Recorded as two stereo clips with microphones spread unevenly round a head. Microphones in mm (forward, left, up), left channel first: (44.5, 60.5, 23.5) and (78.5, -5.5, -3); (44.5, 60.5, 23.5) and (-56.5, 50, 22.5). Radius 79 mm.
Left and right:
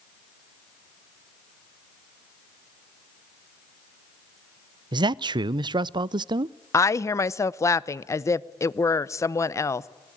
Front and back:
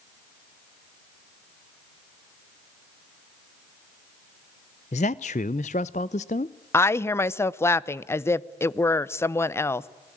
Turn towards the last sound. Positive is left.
turn(degrees=70)